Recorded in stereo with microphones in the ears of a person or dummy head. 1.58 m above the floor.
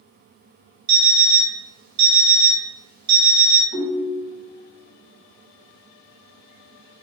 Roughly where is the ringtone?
Centre.